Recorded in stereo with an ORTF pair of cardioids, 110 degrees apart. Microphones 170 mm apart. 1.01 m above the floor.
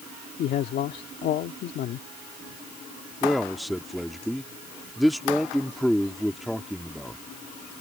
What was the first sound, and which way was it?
A man speaking, 60° left.